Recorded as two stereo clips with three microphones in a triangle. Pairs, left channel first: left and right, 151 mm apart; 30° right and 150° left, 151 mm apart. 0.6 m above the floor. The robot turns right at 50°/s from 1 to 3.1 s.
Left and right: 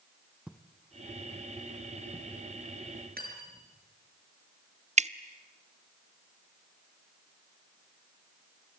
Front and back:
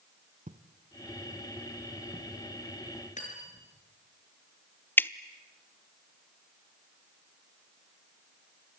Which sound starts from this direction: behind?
Footsteps, at 0.5 s.